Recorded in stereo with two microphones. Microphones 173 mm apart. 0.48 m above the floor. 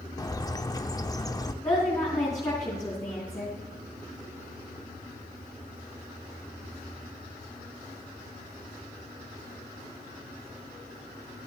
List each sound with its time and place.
0.2 s a bird: 20° left (ahead or behind), 0.7 m
1.6 s a woman speaking: 20° left (ahead or behind), 4.5 m